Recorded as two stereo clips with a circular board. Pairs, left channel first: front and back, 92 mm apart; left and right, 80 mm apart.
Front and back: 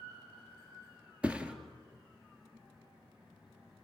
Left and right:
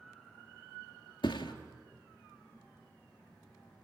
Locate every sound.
1.2 s a thud: 100° left, 1.9 m